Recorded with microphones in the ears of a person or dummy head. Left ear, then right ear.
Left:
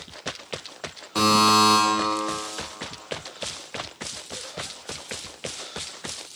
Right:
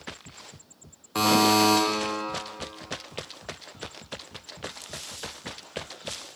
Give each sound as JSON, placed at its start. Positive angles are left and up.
{"t": 1.1, "sound": "a buzzer", "side_deg": -15, "distance_m": 0.9}